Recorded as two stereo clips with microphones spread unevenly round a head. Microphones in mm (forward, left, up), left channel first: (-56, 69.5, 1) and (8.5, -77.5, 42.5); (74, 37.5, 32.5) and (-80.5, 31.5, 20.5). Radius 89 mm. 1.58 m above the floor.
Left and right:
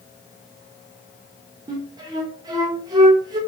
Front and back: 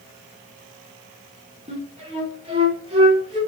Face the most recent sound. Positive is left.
turn(degrees=-120)